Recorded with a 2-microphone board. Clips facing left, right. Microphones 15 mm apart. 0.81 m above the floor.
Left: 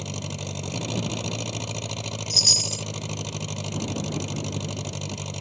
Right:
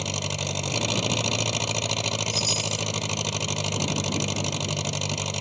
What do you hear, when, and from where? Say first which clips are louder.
0.0 s an engine running: right 5 dB; 25° right (ahead or behind)
2.3 s a chime: left 11 dB; 40° left (ahead or behind)